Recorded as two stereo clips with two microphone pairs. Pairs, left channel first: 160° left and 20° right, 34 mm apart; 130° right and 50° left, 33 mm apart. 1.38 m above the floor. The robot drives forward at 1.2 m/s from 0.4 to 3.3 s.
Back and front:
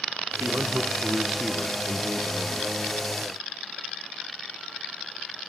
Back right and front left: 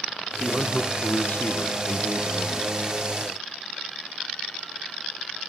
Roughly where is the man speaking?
Ahead right.